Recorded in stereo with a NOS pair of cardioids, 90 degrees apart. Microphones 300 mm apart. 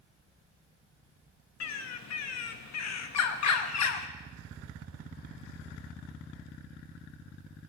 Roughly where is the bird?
Ahead left.